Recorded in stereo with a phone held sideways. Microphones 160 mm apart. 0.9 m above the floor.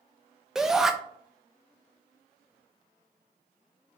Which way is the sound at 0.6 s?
5° right (ahead or behind).